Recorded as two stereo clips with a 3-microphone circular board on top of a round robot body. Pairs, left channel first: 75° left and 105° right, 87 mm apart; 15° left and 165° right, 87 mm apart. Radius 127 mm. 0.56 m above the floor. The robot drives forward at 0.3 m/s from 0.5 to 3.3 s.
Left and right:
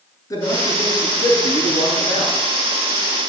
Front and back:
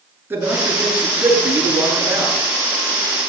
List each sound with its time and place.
0.3 s a man speaking: 130° left, 8.5 m